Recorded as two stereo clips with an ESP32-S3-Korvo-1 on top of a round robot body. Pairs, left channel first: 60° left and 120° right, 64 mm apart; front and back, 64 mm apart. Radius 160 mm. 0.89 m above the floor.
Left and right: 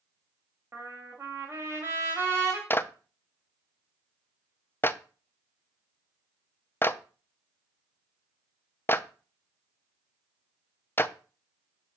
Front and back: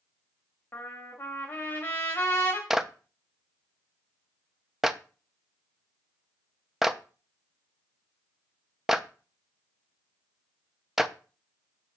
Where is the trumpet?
60° right, 0.6 m.